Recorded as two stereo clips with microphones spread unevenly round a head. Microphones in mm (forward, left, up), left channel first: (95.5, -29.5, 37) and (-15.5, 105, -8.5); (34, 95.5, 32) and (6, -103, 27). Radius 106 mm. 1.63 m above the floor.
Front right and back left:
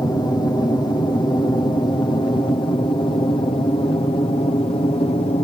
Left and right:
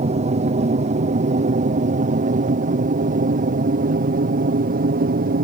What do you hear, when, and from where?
0.0 s an aircraft: 125° right; by 5.4 s 115° right